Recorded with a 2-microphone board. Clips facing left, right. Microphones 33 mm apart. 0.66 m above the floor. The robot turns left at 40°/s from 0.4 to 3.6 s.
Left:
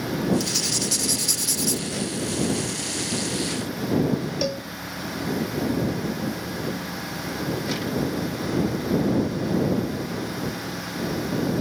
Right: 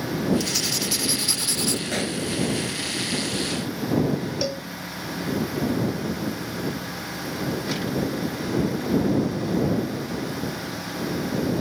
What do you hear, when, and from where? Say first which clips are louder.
0.4 s writing: even; 5° left; by 1.8 s 50° right
1.9 s a pop: right 2 dB; 75° right (ahead or behind); by 2.2 s 85° right
4.4 s a cowbell: left 1 dB; 5° left (ahead or behind)